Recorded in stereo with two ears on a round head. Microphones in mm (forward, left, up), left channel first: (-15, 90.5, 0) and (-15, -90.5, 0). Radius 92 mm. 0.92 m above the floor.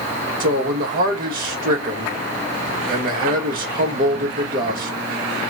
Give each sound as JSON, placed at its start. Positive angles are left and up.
{"t": 0.4, "sound": "a man speaking", "side_deg": -45, "distance_m": 1.2}